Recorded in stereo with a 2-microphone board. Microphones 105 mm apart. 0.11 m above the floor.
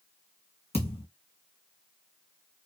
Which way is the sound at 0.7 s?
75° left (ahead or behind).